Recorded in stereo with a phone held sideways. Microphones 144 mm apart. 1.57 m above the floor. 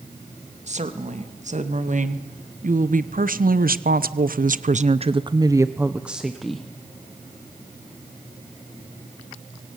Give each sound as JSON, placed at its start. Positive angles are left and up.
{"t": 0.7, "sound": "a woman speaking", "side_deg": -50, "distance_m": 2.5}